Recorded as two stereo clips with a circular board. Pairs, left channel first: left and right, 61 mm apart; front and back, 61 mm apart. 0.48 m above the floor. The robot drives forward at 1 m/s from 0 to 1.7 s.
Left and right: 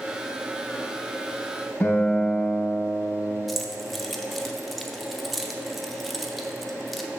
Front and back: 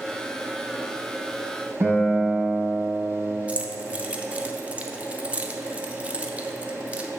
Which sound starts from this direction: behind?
Keys jangling, at 3.5 s.